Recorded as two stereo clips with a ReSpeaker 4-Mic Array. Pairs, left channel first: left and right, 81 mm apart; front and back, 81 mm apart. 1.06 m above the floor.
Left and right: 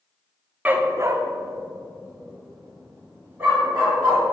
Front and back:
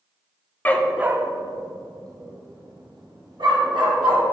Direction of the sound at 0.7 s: 40° right.